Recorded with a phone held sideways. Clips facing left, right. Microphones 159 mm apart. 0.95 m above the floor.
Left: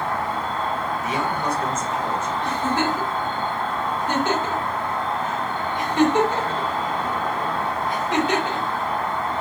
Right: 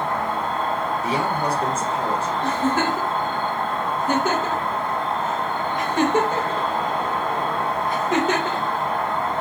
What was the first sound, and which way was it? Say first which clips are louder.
An insect: right 1 dB; 55° right (ahead or behind).